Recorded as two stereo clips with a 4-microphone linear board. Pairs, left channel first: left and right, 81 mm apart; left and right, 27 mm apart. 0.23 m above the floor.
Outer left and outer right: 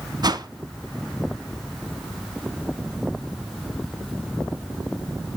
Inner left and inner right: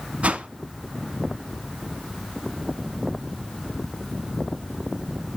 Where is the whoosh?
60° right (ahead or behind), 0.7 m.